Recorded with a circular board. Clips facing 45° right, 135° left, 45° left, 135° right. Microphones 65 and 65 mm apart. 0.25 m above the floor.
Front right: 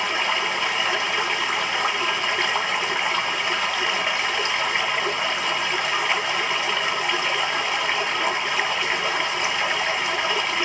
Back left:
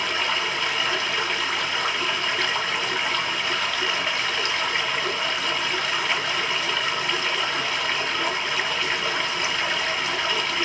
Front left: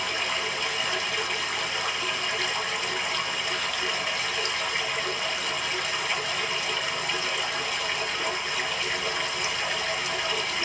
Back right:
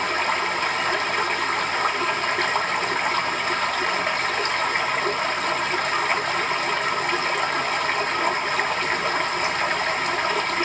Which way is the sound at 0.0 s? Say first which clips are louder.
Front right 2 dB, back right 6 dB; 110° right.